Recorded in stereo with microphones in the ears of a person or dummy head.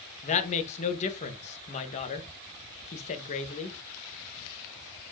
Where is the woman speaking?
35° left (ahead or behind), 1.3 m.